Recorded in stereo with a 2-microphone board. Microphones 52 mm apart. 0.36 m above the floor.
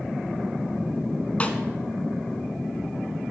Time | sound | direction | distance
1.4 | a snare drum | 25° left (ahead or behind) | 1.0 m